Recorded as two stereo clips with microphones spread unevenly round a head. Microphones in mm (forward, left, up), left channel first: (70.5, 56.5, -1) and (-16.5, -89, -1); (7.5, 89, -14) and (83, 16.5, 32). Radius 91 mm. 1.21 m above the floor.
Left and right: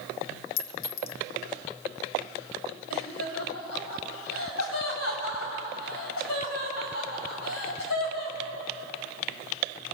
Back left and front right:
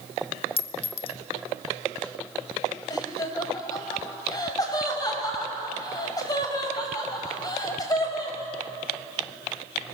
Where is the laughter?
80° left, 5.5 m.